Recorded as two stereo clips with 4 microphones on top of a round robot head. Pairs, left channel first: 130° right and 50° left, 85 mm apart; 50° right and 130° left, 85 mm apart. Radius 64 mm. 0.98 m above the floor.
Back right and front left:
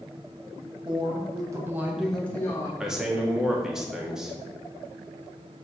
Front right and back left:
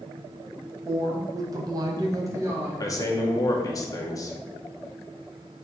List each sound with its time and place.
0.8 s a woman speaking: 75° left, 1.5 m; by 2.7 s 175° right, 1.2 m
2.8 s a man speaking: 25° right, 0.9 m